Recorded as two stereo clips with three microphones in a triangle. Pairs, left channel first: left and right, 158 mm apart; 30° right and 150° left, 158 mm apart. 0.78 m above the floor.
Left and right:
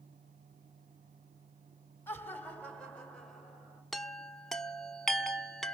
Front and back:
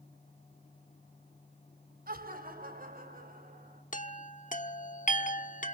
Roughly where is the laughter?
Behind.